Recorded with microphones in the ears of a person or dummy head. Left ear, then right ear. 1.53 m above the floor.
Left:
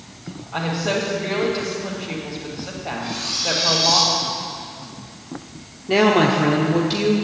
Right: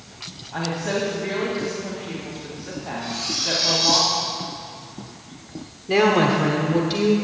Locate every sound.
0.5 s a woman speaking: 25° left (ahead or behind), 2 m
3.0 s cutlery clinking: 10° left (ahead or behind), 2 m
5.9 s a woman speaking: 5° left (ahead or behind), 0.8 m